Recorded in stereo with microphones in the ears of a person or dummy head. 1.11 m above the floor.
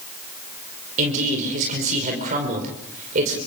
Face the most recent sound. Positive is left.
turn(degrees=-45)  # may be behind; listen again after turning